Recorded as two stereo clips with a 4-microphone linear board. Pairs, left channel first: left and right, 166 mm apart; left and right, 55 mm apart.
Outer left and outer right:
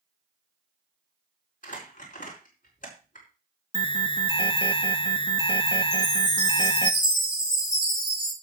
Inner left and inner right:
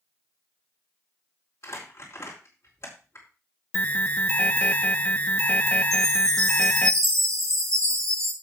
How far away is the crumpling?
About 4.5 m.